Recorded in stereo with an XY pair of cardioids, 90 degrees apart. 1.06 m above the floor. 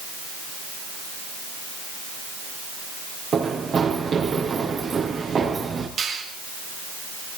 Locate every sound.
3.3 s running footsteps: 55° right, 5 m
6.0 s a finger snap: 65° right, 6 m